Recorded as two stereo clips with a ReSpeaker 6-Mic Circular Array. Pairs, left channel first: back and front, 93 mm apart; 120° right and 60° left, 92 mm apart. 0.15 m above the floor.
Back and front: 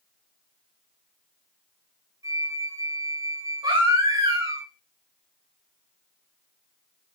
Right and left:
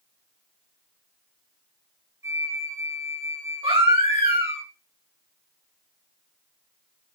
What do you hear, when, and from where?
2.2 s a flute: 15° left, 1.9 m
3.6 s a baby crying: 40° left, 6 m